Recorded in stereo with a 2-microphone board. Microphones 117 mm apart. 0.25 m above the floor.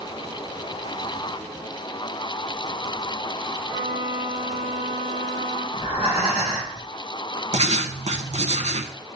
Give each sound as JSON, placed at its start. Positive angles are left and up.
{"t": 3.7, "sound": "a violin", "side_deg": -65, "distance_m": 3.0}
{"t": 5.7, "sound": "breathing", "side_deg": -60, "distance_m": 3.0}
{"t": 7.5, "sound": "writing", "side_deg": -65, "distance_m": 0.7}